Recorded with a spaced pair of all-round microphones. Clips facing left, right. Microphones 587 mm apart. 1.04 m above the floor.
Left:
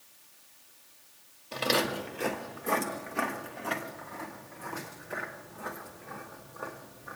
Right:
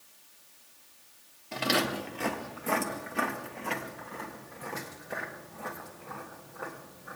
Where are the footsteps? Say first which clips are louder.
Even; 10° right (ahead or behind), 1.4 m; by 7.2 s 70° right (ahead or behind), 3 m.